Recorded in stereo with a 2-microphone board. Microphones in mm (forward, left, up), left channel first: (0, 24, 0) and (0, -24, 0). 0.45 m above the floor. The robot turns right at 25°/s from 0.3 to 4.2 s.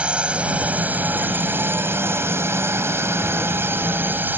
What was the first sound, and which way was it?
A drone, 150° right.